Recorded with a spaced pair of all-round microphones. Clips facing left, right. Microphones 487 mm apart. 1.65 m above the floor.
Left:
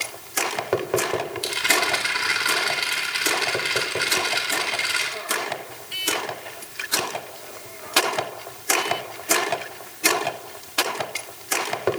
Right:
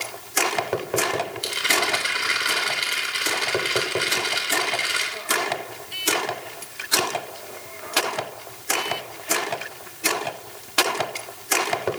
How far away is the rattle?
About 4 m.